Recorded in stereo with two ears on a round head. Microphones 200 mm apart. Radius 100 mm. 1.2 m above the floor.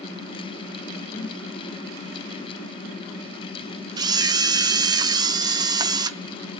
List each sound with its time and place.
1.1 s a whoosh: 25° left (ahead or behind), 1.4 m
4.0 s a camera shutter: 20° right (ahead or behind), 0.9 m